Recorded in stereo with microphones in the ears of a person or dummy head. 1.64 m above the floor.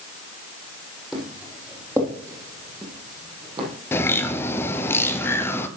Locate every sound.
1.1 s footsteps: centre (ahead or behind), 3.5 m; by 3.7 s 30° right (ahead or behind), 3.5 m
3.9 s a bird: 15° left (ahead or behind), 0.6 m